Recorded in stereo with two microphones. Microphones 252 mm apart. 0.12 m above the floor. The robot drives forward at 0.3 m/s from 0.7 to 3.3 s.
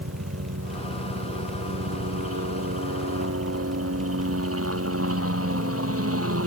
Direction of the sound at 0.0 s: 65° right (ahead or behind).